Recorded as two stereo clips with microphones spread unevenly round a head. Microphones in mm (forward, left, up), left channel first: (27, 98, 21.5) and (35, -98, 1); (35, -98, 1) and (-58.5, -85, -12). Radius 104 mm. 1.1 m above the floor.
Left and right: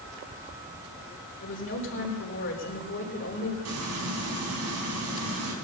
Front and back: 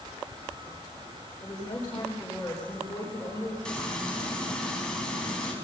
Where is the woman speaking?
65° left, 3.5 m.